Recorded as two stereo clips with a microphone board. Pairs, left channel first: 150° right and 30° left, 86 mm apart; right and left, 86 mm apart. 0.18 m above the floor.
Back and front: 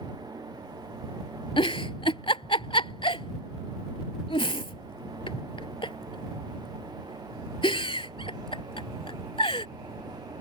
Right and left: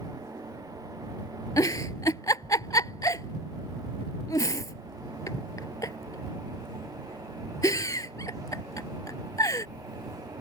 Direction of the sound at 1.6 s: 140° right.